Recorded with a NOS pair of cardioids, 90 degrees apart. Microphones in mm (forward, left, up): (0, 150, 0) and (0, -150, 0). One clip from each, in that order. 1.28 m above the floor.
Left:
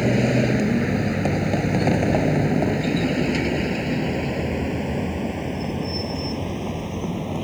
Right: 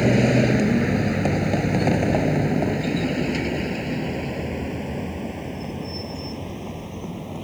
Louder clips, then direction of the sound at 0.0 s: Right 2 dB; 15° right.